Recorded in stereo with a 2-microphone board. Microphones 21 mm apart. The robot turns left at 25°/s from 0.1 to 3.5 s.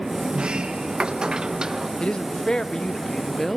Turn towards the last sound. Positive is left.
turn(degrees=15)